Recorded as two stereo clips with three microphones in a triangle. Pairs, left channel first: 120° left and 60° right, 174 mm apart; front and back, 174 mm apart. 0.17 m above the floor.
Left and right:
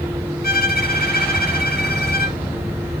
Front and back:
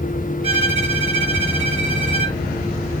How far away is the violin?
About 1.3 m.